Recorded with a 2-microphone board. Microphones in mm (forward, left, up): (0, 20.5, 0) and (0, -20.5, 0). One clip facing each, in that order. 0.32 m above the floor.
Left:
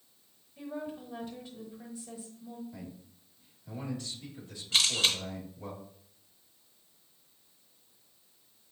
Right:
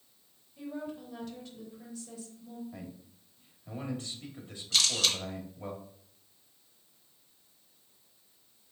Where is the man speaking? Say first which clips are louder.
Even; 35° right (ahead or behind), 1.3 m.